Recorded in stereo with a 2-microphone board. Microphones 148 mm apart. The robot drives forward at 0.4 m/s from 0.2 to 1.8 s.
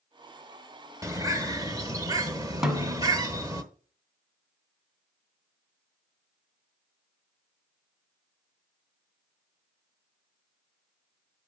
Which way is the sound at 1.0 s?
20° right (ahead or behind).